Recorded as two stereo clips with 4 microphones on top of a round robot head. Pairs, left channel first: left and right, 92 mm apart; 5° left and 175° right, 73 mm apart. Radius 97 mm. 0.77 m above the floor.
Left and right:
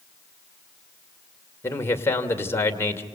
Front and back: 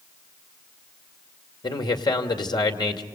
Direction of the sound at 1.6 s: 25° left.